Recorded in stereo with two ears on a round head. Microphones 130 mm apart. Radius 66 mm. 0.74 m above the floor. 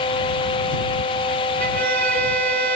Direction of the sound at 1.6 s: 65° right (ahead or behind).